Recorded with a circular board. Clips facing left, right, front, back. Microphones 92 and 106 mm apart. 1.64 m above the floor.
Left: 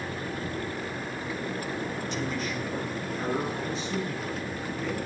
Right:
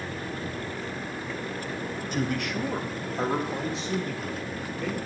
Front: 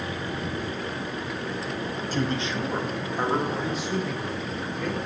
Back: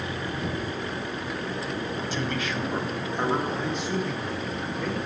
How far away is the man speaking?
About 0.7 m.